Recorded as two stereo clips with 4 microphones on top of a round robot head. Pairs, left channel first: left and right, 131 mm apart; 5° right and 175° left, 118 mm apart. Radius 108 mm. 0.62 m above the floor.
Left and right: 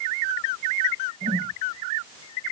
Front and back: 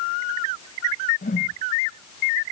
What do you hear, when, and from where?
1.2 s a whoosh: 35° right